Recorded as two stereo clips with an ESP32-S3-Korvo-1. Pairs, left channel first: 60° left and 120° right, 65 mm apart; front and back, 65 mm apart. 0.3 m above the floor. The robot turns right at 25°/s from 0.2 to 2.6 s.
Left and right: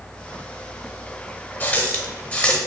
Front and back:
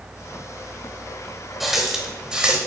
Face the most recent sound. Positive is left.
turn(degrees=120)